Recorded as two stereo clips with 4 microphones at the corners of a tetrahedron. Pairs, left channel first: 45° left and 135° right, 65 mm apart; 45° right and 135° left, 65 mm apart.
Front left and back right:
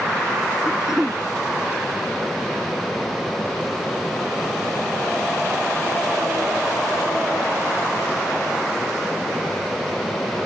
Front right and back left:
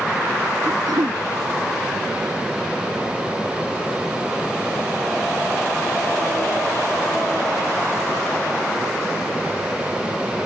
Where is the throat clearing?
140° left.